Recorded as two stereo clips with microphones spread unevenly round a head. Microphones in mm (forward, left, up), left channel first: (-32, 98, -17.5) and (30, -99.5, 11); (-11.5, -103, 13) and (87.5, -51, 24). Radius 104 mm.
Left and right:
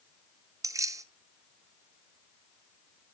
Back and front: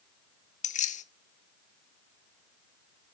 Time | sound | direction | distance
0.6 | keys jangling | 150° right | 0.8 m